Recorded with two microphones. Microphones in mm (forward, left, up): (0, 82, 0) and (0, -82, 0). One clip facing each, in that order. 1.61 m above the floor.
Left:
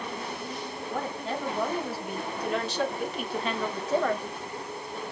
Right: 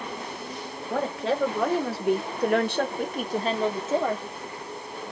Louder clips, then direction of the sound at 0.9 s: Right 7 dB; 90° right.